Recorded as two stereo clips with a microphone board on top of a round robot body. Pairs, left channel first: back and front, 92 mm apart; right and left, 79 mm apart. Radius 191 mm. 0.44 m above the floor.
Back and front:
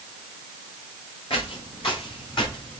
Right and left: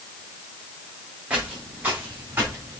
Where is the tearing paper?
No tearing paper in this recording.